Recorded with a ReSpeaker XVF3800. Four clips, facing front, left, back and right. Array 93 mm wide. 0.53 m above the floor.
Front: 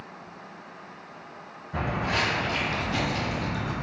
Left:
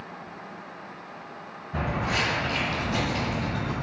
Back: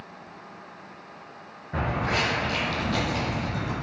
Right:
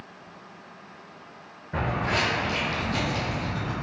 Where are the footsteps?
130° right, 1.8 m; by 3.7 s 115° left, 1.6 m.